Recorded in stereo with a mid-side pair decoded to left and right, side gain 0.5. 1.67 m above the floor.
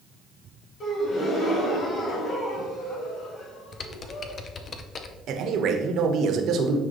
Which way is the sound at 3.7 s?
45° left.